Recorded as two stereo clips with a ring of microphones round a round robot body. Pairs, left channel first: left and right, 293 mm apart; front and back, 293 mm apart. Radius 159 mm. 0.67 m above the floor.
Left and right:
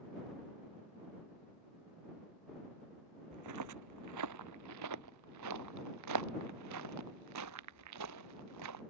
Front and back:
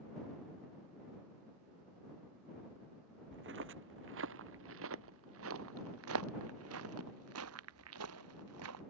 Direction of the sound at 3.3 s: 125° right.